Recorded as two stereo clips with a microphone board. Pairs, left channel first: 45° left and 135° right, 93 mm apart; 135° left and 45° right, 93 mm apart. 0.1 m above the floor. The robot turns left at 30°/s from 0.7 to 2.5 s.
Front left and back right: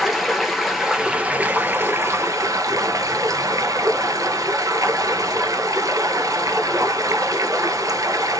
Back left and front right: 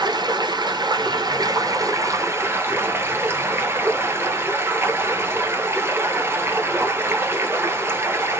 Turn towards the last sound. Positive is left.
turn(degrees=-100)